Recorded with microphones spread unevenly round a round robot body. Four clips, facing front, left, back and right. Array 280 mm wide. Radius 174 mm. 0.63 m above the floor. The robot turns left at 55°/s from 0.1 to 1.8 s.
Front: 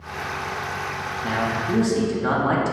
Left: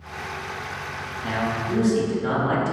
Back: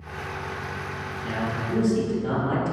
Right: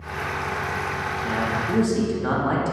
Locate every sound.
1.2 s a man speaking: 20° left, 1.3 m; by 2.7 s 10° right, 1.3 m